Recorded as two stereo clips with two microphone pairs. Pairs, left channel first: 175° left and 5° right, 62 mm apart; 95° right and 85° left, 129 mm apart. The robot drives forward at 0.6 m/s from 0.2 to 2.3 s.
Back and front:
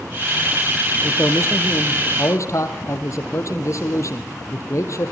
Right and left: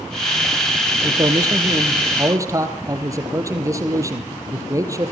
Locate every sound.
1.0 s a man speaking: 140° left, 2.5 m; by 5.1 s 150° left, 3 m